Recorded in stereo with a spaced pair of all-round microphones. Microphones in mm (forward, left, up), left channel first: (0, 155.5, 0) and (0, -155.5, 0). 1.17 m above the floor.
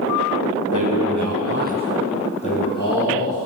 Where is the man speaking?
75° right (ahead or behind), 1.3 m; by 3.4 s 40° left (ahead or behind), 1.8 m.